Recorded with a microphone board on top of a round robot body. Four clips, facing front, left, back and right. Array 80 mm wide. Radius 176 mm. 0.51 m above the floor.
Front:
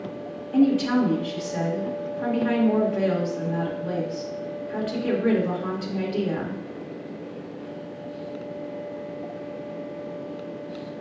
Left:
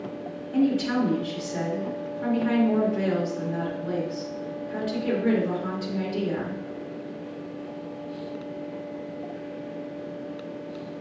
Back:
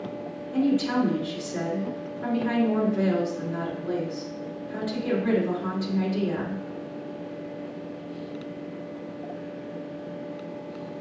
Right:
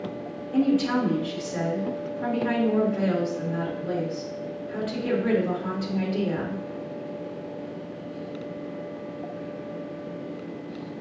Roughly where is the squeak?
I don't hear a squeak.